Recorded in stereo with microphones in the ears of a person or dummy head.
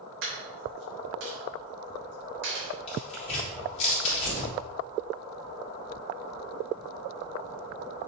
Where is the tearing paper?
35° left (ahead or behind), 3 m.